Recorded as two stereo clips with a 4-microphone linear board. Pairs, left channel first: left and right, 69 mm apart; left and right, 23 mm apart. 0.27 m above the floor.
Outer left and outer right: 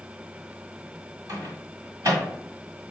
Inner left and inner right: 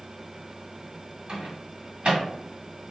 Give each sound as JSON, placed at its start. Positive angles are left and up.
{"t": 1.3, "sound": "a microwave", "side_deg": -50, "distance_m": 1.9}